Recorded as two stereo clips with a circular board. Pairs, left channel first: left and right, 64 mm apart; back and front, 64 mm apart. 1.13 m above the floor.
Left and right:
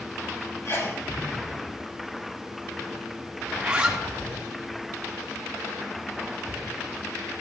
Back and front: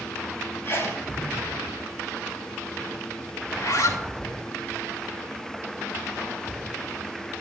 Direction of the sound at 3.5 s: 165° right.